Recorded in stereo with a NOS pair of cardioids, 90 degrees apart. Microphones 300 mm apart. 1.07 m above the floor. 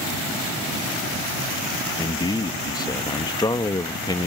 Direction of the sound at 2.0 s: 15° left.